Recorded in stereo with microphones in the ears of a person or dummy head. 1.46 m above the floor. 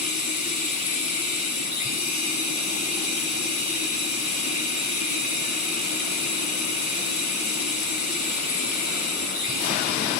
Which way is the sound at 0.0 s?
40° left (ahead or behind).